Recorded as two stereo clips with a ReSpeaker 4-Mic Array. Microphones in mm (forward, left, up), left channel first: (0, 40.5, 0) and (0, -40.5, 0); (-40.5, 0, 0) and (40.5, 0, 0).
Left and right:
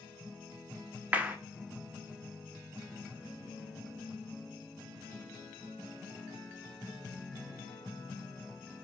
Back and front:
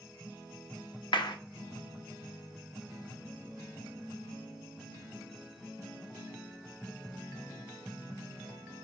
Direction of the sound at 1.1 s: 160° right.